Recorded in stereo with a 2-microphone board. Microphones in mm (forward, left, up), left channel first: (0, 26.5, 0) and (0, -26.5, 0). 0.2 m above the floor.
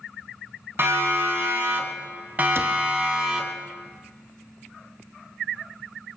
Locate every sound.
0.8 s a siren: 45° right (ahead or behind), 2.5 m; by 3.5 s 15° right (ahead or behind), 2 m
2.5 s a cupboard door: 50° right (ahead or behind), 1.5 m